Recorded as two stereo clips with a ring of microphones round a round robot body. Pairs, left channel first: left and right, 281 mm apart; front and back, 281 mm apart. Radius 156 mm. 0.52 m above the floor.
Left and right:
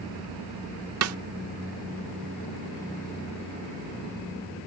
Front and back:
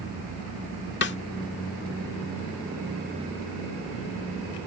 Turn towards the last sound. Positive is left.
turn(degrees=-55)